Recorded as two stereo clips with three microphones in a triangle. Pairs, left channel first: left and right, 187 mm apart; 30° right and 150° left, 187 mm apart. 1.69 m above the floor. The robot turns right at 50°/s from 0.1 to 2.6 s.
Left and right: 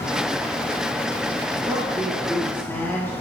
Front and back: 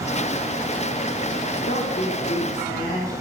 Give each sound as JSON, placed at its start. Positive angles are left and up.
{"t": 1.7, "sound": "a woman speaking", "azimuth_deg": -35, "distance_m": 1.5}